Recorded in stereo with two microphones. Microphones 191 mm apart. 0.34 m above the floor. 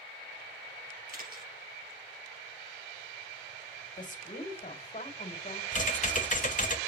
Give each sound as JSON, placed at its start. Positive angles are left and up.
{"t": 1.1, "sound": "a camera shutter", "side_deg": -50, "distance_m": 2.5}
{"t": 4.0, "sound": "a woman speaking", "side_deg": 40, "distance_m": 1.8}
{"t": 5.7, "sound": "typing on a keyboard", "side_deg": 40, "distance_m": 1.0}